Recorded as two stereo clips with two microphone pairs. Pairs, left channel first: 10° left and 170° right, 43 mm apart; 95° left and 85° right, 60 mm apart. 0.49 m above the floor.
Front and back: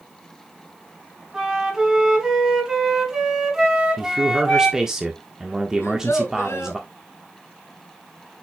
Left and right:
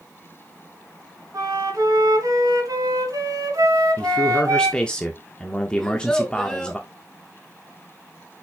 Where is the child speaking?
10° left, 3 m.